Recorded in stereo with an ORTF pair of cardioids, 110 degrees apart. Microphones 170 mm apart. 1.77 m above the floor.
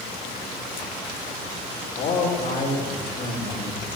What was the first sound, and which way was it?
A man speaking, 40° left.